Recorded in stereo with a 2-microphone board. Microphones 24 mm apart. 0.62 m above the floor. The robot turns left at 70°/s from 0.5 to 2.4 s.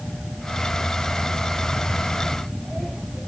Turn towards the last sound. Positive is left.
No sound to turn to.